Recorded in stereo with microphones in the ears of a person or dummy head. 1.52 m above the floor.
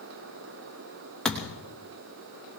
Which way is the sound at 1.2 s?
5° left (ahead or behind).